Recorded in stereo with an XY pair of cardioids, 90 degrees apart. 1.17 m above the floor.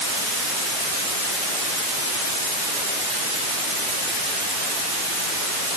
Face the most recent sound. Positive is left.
No sound to turn to.